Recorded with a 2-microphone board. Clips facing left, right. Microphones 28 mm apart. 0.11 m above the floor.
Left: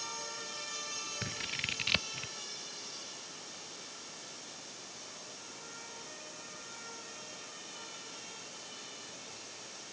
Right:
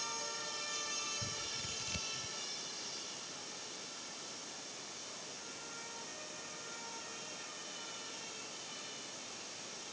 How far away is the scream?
I don't hear a scream.